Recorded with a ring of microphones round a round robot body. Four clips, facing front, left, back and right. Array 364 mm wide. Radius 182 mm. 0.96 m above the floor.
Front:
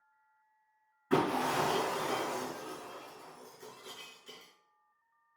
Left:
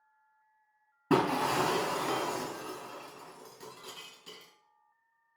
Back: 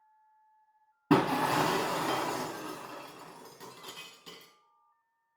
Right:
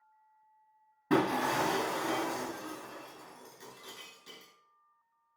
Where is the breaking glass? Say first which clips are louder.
Left 1 dB, back 4 dB; 175° left, 2.5 m.